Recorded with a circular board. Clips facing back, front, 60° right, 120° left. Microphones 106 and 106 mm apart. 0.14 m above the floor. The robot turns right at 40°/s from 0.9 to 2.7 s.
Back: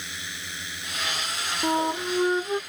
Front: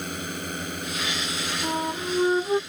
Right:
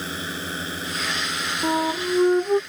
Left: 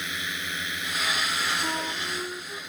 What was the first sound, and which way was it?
A drone, 20° right.